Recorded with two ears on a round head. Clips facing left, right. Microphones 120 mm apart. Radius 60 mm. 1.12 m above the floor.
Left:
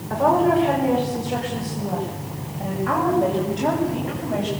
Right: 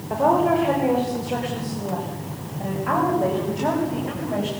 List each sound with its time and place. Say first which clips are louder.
0.1 s a woman speaking: left 1 dB; 15° right (ahead or behind), 4.5 m; by 4.5 s 5° right (ahead or behind), 7 m